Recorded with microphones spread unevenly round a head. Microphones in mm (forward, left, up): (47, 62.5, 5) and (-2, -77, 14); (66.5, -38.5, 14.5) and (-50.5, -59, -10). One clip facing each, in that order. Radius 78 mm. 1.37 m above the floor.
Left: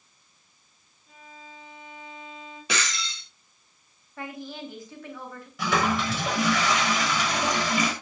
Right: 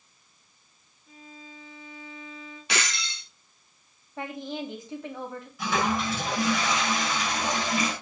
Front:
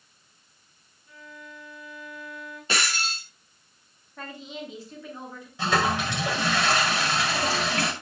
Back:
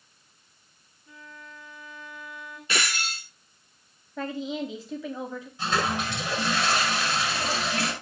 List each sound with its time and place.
1.1 s a violin: 165° left, 8.5 m
2.7 s breaking glass: 75° left, 6 m
4.2 s a woman speaking: straight behind, 3 m
5.6 s a toilet flushing: 50° left, 6 m